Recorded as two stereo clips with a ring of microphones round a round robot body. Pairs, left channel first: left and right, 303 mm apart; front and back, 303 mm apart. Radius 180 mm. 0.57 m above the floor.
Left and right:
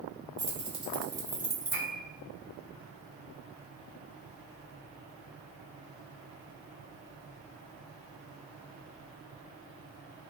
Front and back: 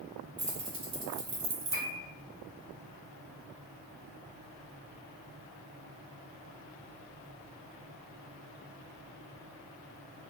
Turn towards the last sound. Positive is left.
turn(degrees=75)